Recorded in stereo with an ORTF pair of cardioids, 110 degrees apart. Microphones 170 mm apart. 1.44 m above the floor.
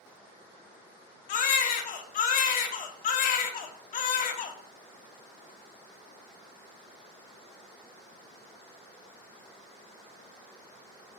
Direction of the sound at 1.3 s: 55° left.